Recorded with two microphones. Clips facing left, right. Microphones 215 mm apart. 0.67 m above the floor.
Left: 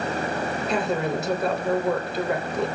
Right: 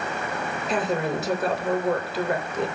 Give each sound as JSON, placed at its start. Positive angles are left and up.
{"t": 0.7, "sound": "a woman speaking", "side_deg": -5, "distance_m": 3.0}